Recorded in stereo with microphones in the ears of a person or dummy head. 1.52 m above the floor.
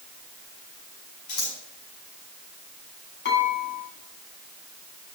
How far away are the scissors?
About 5.5 m.